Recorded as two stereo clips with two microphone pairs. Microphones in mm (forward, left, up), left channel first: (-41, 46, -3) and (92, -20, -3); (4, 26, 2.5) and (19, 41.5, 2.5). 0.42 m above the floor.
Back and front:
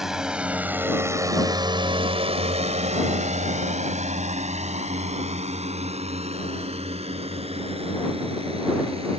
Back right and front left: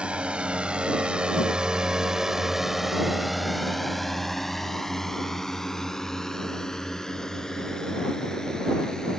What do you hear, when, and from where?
0.0 s a drone: 60° left; by 9.2 s 75° right